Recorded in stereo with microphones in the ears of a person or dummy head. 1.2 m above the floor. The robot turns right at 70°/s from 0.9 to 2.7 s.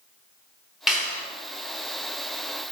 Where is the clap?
Centre (ahead or behind), 0.8 m; by 1.2 s 20° left (ahead or behind), 0.8 m.